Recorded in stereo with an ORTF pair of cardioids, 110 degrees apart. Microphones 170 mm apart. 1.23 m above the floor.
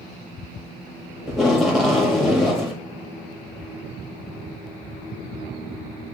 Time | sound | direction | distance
1.3 | tape being pulled | straight ahead | 1.7 m